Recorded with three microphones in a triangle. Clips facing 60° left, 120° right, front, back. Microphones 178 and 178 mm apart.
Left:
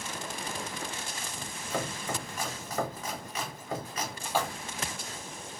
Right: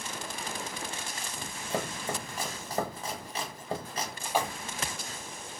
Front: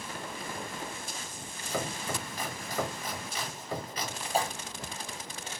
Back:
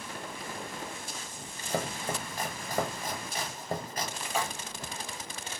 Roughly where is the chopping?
Behind.